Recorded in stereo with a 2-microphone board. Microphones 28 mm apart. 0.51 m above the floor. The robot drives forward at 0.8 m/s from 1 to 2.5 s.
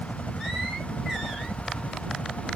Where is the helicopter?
50° left (ahead or behind).